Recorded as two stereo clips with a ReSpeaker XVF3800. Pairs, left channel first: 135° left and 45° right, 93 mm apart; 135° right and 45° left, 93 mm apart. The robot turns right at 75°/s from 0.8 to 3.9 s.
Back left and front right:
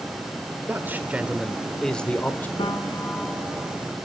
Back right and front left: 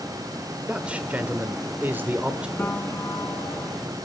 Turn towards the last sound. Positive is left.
turn(degrees=-110)